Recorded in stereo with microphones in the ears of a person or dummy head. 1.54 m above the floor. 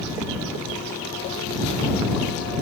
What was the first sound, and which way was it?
Only background noise.